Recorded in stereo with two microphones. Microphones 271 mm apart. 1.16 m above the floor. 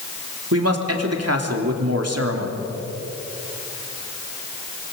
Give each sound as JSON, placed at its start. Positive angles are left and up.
{"t": 0.5, "sound": "a man speaking", "side_deg": -55, "distance_m": 3.0}